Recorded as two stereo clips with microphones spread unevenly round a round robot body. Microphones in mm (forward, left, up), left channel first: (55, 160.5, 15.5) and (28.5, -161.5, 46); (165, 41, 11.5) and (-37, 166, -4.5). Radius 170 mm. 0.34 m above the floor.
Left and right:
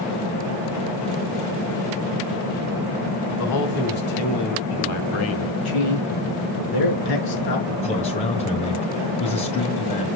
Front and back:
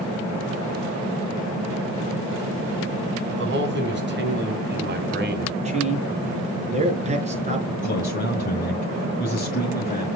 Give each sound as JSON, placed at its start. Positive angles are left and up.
{"t": 3.3, "sound": "a man speaking", "azimuth_deg": 115, "distance_m": 3.5}
{"t": 5.7, "sound": "a man speaking", "azimuth_deg": 85, "distance_m": 5.0}
{"t": 7.8, "sound": "a man speaking", "azimuth_deg": 20, "distance_m": 2.0}